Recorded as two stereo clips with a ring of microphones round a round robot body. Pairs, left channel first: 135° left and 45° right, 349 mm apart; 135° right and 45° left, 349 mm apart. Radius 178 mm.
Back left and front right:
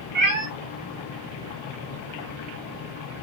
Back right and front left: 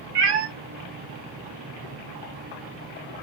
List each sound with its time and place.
0.1 s a cat meowing: 20° left, 0.6 m